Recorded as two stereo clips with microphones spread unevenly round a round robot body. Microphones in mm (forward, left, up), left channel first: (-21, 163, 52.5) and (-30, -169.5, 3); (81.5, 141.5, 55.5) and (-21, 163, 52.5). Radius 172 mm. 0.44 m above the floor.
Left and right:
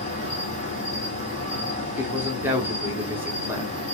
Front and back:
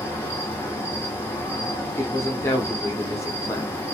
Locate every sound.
0.0 s an insect: 35° left, 1.6 m
2.0 s a man speaking: 35° right, 0.8 m